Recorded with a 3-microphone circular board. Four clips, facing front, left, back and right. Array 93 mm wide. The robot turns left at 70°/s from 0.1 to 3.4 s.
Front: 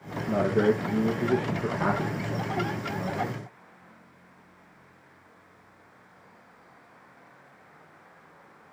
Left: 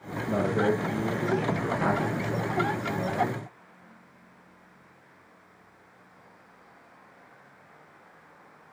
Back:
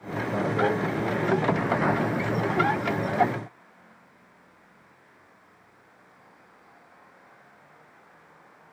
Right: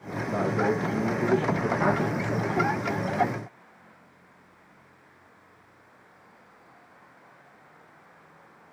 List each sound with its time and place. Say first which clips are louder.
0.3 s a man speaking: left 1 dB, front 2 dB; 45° left, 4.5 m; by 3.5 s 175° right, 4.5 m